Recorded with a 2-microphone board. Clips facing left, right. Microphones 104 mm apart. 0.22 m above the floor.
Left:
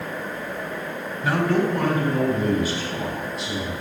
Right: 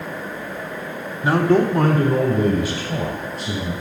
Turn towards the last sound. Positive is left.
turn(degrees=-45)  # may be behind; listen again after turning